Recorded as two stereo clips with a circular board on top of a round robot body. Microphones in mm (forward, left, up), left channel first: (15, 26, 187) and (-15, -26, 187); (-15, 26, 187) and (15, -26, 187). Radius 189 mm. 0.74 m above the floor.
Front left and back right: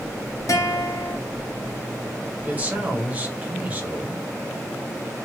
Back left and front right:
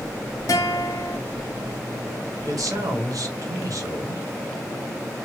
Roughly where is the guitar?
Left.